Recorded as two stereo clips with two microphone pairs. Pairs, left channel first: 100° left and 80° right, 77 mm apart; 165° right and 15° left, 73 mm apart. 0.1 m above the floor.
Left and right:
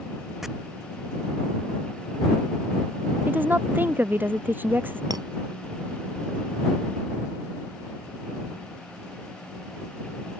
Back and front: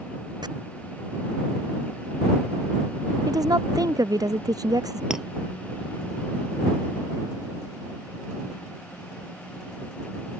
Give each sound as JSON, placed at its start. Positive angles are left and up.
{"t": 0.4, "sound": "chopping", "azimuth_deg": 5}
{"t": 3.3, "sound": "a woman speaking", "azimuth_deg": -15}
{"t": 5.1, "sound": "a clink", "azimuth_deg": -65}